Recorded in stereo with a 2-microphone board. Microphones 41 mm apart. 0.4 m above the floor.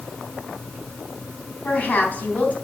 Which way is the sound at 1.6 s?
40° left (ahead or behind).